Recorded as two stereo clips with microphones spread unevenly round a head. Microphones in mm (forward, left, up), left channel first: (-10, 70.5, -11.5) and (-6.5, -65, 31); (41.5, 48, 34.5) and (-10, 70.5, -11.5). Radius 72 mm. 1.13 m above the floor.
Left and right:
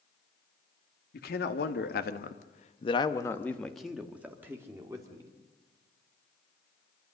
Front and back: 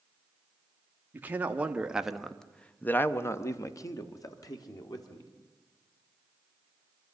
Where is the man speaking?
100° left, 1.9 m; by 5.3 s 20° right, 3 m.